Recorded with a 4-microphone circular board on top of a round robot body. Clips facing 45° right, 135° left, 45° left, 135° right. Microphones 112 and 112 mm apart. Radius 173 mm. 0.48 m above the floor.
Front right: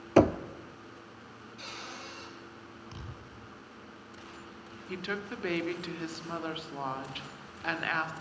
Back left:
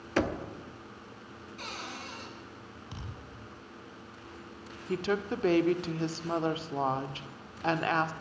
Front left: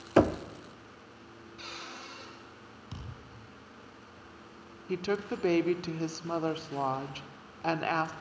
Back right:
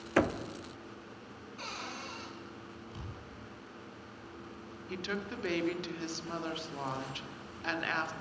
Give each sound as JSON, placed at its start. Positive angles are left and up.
{"t": 0.2, "sound": "knocking", "azimuth_deg": -10, "distance_m": 1.3}
{"t": 1.6, "sound": "a cupboard door", "azimuth_deg": 175, "distance_m": 7.5}
{"t": 2.9, "sound": "a thud", "azimuth_deg": 55, "distance_m": 9.0}
{"t": 4.9, "sound": "a woman speaking", "azimuth_deg": 85, "distance_m": 2.0}